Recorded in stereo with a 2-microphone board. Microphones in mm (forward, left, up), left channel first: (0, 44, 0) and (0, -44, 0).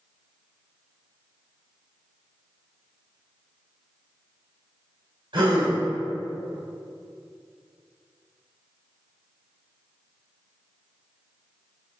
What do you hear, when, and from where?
5.3 s a gasp: 70° right (ahead or behind), 1.9 m